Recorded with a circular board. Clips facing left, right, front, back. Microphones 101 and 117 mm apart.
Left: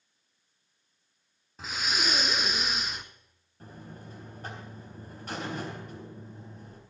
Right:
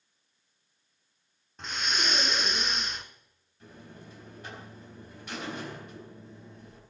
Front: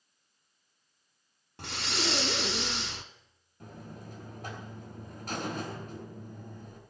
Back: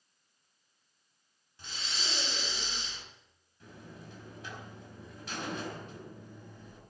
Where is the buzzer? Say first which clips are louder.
Left 2 dB, front 4 dB; 40° left, 4 m.